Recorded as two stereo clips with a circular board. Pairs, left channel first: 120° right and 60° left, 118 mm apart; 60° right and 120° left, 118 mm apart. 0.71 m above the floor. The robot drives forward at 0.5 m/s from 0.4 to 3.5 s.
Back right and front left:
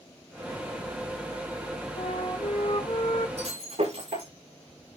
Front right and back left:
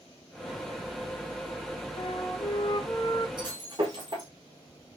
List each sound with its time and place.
2.0 s a flute: 95° right, 1.8 m; by 3.3 s 115° right, 1.9 m
3.4 s breaking glass: 70° left, 8.5 m